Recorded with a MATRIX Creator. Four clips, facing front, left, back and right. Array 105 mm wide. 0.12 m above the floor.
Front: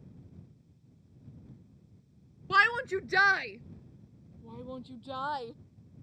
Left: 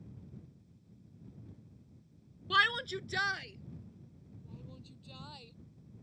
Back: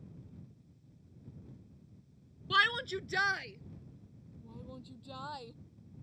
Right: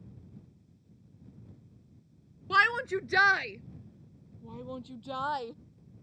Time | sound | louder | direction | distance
2.5 | a shout | right 5 dB, front 5 dB | 40° right | ?